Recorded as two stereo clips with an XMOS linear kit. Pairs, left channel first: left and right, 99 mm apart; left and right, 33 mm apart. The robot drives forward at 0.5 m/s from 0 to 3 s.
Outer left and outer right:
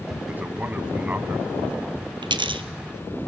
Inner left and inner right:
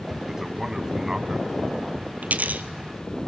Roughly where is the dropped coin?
Right.